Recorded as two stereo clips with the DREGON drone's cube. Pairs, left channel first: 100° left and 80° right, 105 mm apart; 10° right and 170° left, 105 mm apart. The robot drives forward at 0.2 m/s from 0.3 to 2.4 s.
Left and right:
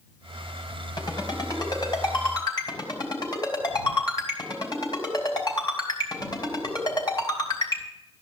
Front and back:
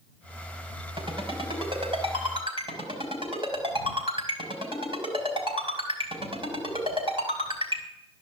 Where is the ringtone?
145° left, 3.5 m; by 7.8 s 150° left, 4 m.